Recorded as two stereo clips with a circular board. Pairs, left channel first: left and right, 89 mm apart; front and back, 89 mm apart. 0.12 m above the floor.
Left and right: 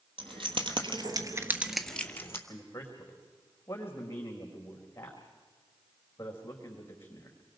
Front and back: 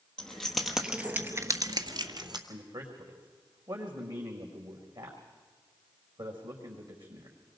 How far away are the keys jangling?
About 2.5 m.